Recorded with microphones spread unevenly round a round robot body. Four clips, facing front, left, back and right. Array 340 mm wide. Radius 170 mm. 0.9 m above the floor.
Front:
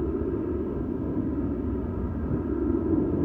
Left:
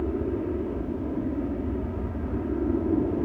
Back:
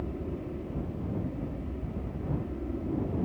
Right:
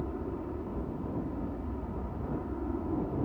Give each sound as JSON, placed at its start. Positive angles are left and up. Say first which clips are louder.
{"t": 0.0, "sound": "an aircraft", "louder": "left 9 dB, front 9 dB", "azimuth_deg": 40}